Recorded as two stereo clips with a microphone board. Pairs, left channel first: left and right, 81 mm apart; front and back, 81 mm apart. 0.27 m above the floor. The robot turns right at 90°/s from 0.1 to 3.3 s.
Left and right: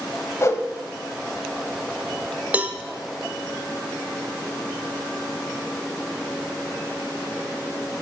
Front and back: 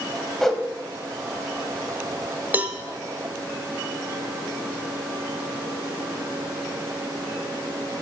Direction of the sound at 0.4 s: 80° left.